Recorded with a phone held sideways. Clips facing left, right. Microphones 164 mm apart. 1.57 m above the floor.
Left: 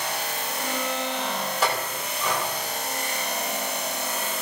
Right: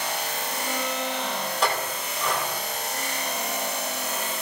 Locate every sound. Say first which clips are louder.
1.6 s a clink: right 1 dB; 5° left (ahead or behind), 7 m